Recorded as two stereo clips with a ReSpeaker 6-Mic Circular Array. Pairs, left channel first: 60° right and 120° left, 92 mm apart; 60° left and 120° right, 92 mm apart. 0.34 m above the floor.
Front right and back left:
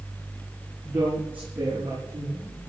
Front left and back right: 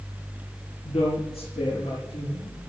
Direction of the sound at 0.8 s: 50° left.